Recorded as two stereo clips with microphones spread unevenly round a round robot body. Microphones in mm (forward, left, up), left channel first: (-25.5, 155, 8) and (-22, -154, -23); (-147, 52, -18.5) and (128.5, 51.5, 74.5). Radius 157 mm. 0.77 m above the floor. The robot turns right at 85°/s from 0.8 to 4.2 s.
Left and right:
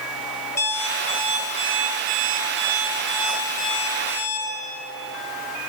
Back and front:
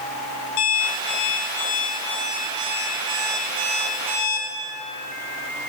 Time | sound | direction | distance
0.6 | an alarm clock | 155° left | 3 m